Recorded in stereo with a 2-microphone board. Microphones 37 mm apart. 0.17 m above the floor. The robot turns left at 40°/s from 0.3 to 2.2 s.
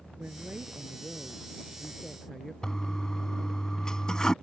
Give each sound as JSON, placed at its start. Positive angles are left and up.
{"t": 0.2, "sound": "a woman speaking", "azimuth_deg": -115}
{"t": 2.6, "sound": "a toilet flushing", "side_deg": 20}